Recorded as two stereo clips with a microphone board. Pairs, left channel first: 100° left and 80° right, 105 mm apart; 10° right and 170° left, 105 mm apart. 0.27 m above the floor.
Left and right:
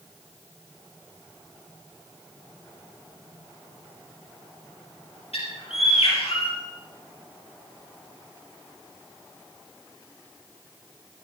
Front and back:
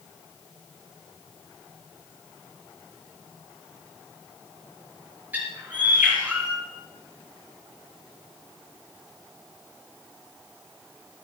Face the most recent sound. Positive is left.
turn(degrees=100)